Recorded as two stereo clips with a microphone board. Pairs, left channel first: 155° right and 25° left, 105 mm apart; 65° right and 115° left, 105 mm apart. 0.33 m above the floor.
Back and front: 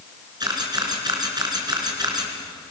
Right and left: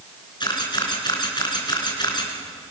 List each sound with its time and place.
0.4 s a camera shutter: 25° right, 3.5 m